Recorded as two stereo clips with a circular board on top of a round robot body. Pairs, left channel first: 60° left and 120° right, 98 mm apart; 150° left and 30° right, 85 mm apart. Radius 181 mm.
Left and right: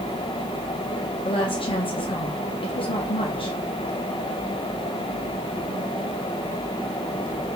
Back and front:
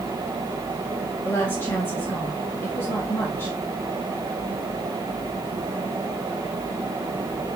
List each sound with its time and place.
1.2 s a woman speaking: 85° left, 1.6 m